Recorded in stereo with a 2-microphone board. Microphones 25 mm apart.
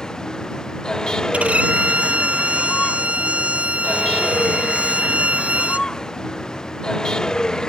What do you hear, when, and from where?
0.0 s a vehicle: 25° left (ahead or behind)
1.3 s a violin: 60° right (ahead or behind)